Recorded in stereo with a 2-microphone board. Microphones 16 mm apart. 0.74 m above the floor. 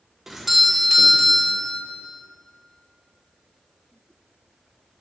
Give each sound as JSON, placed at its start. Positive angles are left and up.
{"t": 0.3, "sound": "a doorbell", "side_deg": -15, "distance_m": 1.0}